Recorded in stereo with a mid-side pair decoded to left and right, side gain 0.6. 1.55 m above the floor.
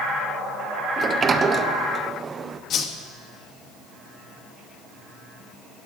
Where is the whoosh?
50° left, 2 m.